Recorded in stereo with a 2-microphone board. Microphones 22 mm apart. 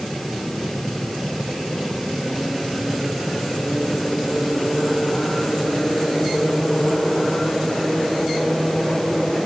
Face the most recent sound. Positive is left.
No sound to turn to.